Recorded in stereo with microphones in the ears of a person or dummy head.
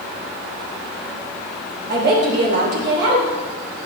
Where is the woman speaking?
55° right (ahead or behind), 3.5 m.